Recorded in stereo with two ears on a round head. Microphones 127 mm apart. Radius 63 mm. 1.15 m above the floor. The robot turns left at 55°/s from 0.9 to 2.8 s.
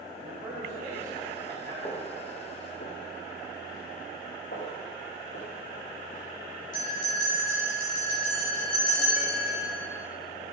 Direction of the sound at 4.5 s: 65° left (ahead or behind).